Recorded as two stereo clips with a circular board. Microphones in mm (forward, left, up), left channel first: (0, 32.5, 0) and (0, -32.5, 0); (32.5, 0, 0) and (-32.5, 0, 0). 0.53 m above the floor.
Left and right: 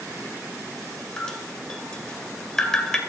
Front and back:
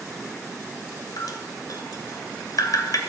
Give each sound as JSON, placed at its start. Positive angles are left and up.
{"t": 1.2, "sound": "dripping", "azimuth_deg": 10, "distance_m": 2.0}